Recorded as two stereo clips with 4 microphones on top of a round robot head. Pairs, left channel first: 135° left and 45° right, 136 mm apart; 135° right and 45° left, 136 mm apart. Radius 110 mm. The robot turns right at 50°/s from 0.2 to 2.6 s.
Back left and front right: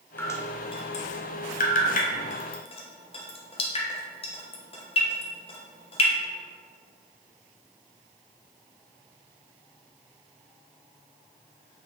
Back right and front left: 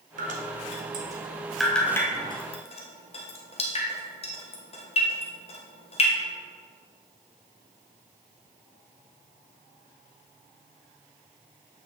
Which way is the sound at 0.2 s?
60° left.